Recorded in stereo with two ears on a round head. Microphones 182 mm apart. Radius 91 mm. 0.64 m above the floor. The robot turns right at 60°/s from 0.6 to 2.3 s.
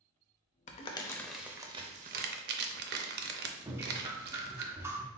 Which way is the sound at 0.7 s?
35° left (ahead or behind).